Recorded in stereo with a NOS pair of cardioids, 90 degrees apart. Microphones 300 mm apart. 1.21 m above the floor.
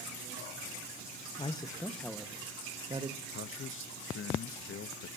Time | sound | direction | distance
1.4 | a man speaking | 20° left | 1.4 m
3.3 | a man speaking | 45° left | 0.9 m